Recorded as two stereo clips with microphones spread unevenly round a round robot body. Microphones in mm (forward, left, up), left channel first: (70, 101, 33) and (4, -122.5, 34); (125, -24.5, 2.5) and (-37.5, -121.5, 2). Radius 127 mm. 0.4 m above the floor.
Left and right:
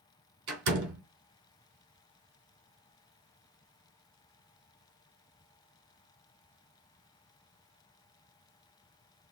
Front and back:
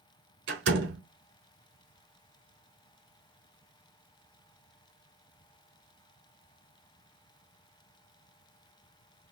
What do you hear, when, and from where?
0.5 s a door slam: 135° right, 3.5 m